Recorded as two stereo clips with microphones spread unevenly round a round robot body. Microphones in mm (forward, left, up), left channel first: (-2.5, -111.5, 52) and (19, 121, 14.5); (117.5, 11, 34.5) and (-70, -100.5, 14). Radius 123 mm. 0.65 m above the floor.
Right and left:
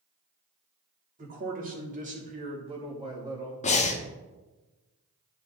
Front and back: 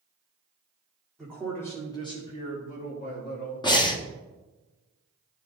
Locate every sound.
1.2 s a man speaking: 120° left, 1.9 m; by 3.7 s 10° left, 1.6 m
3.6 s breathing: 35° right, 1.0 m